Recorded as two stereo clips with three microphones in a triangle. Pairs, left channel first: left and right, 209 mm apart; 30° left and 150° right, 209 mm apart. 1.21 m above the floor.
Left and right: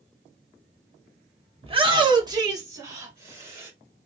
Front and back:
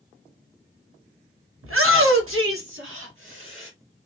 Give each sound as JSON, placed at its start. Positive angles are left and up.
{"t": 1.6, "sound": "a shout", "azimuth_deg": -155, "distance_m": 1.1}